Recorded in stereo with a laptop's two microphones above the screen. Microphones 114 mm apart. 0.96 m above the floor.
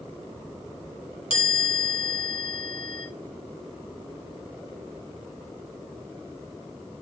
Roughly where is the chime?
Left.